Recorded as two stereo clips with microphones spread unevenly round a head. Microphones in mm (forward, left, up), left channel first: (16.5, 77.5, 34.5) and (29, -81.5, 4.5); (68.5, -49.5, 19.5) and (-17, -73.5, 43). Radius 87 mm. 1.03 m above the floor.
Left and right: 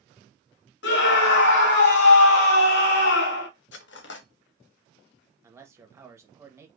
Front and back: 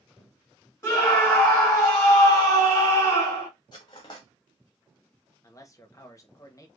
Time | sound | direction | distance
0.8 | a scream | 80° left | 2 m
3.7 | cutlery clinking | 80° left | 0.8 m
5.4 | a man speaking | 20° right | 1.4 m